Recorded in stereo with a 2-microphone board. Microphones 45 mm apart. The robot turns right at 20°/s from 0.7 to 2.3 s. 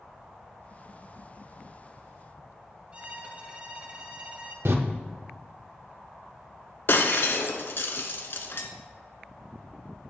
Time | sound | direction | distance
2.9 | a violin | 30° right (ahead or behind) | 1.1 m
4.7 | a door slam | 60° right (ahead or behind) | 0.6 m
6.9 | breaking glass | 55° left (ahead or behind) | 0.7 m